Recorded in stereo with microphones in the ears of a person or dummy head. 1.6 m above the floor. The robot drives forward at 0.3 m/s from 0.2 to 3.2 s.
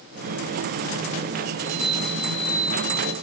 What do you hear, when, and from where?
1.6 s a chime: 60° right (ahead or behind), 0.6 m; by 3.1 s 35° right (ahead or behind), 0.9 m